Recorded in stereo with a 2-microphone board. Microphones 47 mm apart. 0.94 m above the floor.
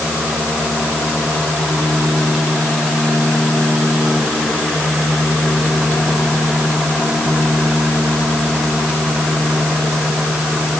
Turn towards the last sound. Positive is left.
No sound to turn to.